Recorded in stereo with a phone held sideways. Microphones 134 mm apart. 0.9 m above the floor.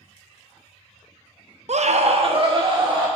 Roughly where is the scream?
Right.